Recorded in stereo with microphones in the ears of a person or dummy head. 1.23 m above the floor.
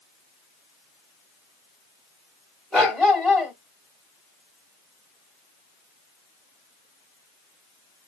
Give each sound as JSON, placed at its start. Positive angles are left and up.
{"t": 2.7, "sound": "a dog barking", "side_deg": 0, "distance_m": 2.0}